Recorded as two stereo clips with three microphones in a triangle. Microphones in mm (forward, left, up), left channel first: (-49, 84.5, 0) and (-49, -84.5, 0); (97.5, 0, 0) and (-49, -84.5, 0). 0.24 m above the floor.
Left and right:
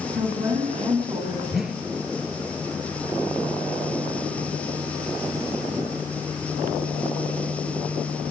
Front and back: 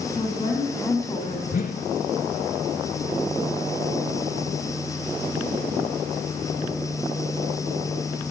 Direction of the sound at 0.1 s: 45° right.